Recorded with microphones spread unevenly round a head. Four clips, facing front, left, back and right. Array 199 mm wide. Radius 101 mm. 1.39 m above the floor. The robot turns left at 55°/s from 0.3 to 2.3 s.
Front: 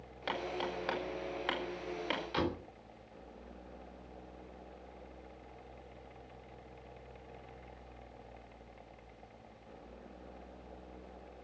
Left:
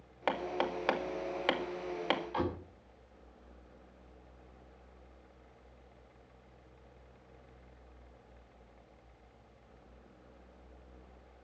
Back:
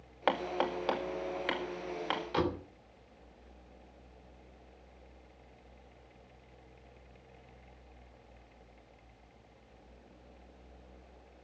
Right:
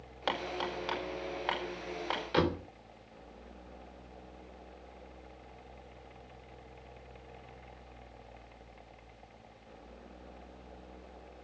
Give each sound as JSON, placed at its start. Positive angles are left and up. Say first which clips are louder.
{"t": 0.3, "sound": "hammering", "louder": "left 2 dB, back 6 dB", "azimuth_deg": 170, "distance_m": 2.5}
{"t": 2.3, "sound": "a door slam", "louder": "right 5 dB, back 3 dB", "azimuth_deg": -95, "distance_m": 3.0}